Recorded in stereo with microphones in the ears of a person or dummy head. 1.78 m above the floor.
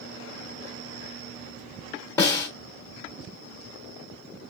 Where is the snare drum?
15° left (ahead or behind), 0.7 m.